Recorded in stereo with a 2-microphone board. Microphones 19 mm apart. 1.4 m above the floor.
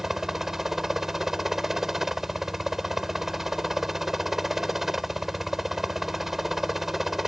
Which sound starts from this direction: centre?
A helicopter, at 0.0 s.